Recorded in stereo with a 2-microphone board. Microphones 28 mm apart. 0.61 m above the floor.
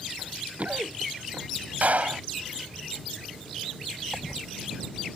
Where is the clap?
55° right (ahead or behind).